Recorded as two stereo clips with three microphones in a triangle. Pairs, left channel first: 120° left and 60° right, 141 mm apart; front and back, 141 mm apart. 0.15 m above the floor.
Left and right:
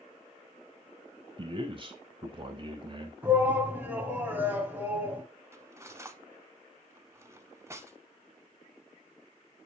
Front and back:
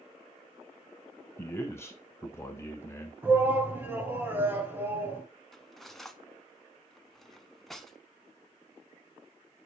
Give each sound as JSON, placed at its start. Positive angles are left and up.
{"t": 1.4, "sound": "a man speaking", "azimuth_deg": -55, "distance_m": 1.3}
{"t": 3.2, "sound": "a shout", "azimuth_deg": -120, "distance_m": 1.4}
{"t": 5.5, "sound": "cutlery clinking", "azimuth_deg": -85, "distance_m": 0.6}